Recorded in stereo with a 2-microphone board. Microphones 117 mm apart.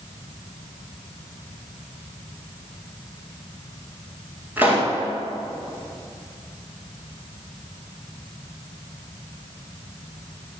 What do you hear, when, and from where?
4.6 s a pop: 15° right (ahead or behind), 10 m